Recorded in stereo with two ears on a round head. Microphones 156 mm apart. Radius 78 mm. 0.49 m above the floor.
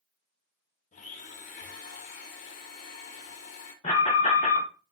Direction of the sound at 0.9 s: 45° left (ahead or behind).